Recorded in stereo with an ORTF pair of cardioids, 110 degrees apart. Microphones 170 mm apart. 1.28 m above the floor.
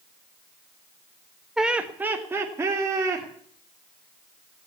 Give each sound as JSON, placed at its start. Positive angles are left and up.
{"t": 1.6, "sound": "laughter", "azimuth_deg": -5, "distance_m": 1.3}